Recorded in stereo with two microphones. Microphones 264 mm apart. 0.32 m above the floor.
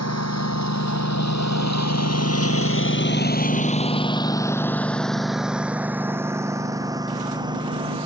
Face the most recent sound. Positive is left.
turn(degrees=-20)  # may be behind; listen again after turning